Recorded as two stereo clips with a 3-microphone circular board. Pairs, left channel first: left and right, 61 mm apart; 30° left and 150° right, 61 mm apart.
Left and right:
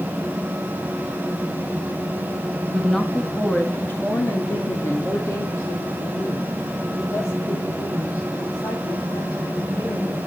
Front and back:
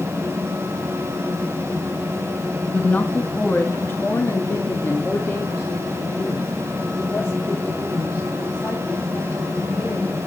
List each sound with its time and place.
2.7 s a woman speaking: straight ahead, 1.6 m; by 10.2 s 80° left, 7.5 m